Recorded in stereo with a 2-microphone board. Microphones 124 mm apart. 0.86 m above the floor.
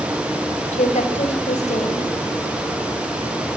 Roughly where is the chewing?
I don't hear chewing.